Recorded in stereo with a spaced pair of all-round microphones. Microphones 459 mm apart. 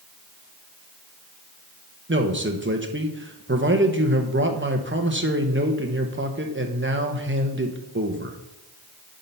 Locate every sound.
2.1 s a man speaking: 25° right (ahead or behind), 1.1 m